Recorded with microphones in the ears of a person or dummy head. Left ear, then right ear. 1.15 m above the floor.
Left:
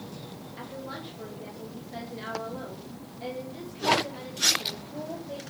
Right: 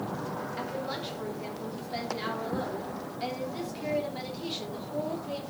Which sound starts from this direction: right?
A woman speaking, at 0.6 s.